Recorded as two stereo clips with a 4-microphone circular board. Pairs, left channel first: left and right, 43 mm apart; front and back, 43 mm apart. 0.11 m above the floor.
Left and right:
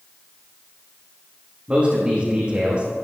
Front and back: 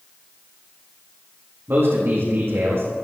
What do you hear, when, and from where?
1.7 s a man speaking: 155° right, 5 m